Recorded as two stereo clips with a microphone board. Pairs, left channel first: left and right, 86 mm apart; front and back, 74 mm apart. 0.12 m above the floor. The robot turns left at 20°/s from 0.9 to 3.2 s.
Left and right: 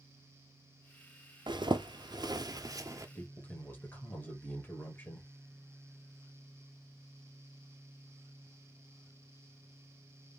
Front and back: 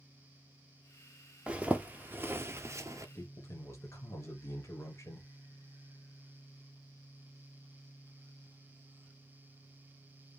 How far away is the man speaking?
About 1.8 m.